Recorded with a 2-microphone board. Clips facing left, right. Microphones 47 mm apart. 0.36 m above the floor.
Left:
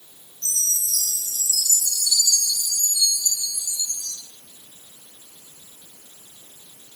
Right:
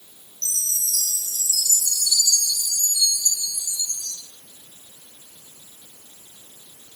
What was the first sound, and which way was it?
A chime, 70° right (ahead or behind).